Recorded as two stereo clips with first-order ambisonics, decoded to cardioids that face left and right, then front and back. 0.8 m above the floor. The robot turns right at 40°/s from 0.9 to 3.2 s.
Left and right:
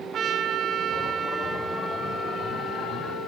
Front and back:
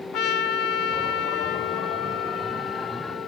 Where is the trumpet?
35° right, 1.8 m; by 3.3 s 60° left, 1.8 m.